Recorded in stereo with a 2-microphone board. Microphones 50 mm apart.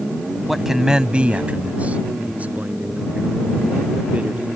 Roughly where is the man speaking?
Centre.